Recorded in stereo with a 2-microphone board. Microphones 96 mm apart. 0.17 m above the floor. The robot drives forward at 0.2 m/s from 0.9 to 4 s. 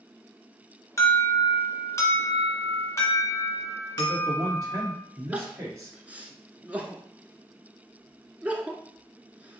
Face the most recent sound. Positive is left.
turn(degrees=-15)  # may be behind; listen again after turning